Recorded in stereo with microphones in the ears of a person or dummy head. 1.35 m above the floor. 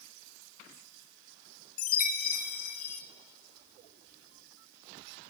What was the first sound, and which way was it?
A chime, 55° left (ahead or behind).